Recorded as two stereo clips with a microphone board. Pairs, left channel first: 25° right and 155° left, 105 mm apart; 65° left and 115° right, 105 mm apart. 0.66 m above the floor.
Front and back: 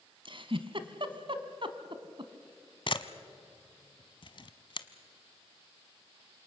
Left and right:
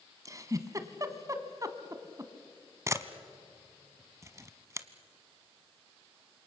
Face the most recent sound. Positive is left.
turn(degrees=-55)